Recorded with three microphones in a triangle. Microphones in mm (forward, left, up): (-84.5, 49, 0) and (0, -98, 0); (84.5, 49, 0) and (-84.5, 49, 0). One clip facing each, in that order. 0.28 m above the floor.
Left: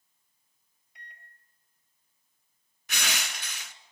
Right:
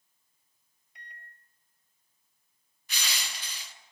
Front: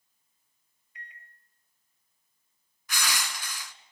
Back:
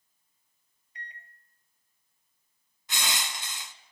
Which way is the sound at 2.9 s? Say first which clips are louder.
Left 4 dB, front 1 dB; 115° left.